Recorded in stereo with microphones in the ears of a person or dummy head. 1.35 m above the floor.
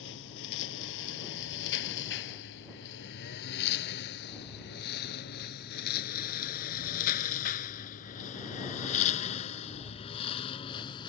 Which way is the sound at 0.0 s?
70° left (ahead or behind).